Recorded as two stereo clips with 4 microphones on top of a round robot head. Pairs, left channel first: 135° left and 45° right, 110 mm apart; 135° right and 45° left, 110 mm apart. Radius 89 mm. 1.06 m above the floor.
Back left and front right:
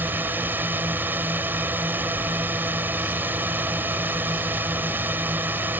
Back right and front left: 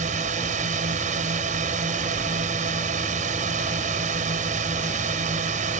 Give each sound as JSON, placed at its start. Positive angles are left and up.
{"t": 0.0, "sound": "a drone", "azimuth_deg": 30}